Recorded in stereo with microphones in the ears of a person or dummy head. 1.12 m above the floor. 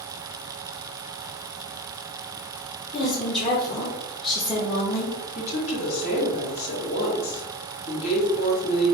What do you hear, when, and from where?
2.9 s a woman speaking: 25° left (ahead or behind), 0.9 m
5.3 s a woman speaking: 35° left (ahead or behind), 1.8 m